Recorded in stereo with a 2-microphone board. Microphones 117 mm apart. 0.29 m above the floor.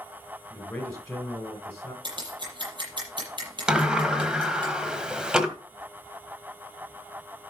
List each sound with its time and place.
0.5 s a man speaking: 10° left (ahead or behind), 3 m
2.0 s scissors: 40° right (ahead or behind), 7 m
3.7 s a sliding door: 5° right (ahead or behind), 1.4 m